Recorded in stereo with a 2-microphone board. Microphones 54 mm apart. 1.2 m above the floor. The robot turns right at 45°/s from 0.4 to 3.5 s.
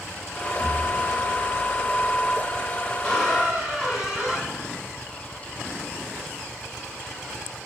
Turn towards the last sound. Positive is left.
turn(degrees=-10)  # may be behind; listen again after turning